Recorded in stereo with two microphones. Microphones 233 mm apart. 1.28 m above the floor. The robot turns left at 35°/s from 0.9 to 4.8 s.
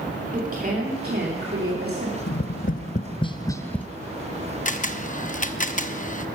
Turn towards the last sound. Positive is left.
turn(degrees=35)  # may be behind; listen again after turning